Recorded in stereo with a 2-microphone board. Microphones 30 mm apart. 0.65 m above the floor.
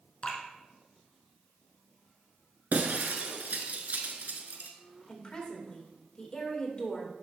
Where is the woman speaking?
30° left (ahead or behind), 2.5 m.